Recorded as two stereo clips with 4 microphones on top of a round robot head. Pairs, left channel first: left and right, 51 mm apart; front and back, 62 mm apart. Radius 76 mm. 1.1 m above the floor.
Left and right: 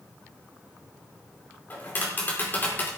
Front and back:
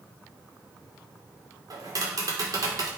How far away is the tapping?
About 4 m.